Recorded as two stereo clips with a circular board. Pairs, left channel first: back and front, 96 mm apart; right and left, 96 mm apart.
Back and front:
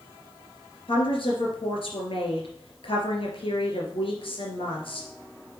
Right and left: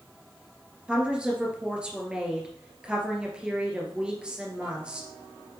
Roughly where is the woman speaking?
Behind.